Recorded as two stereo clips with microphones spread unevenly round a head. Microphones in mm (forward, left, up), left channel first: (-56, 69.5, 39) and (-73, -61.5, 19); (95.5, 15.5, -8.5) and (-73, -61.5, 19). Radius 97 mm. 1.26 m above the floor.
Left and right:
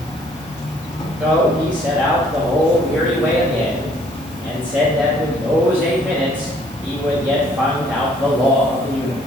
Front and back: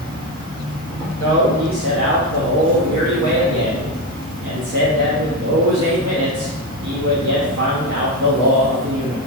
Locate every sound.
0.0 s an insect: 120° left, 1.1 m
1.2 s a man speaking: 175° right, 0.7 m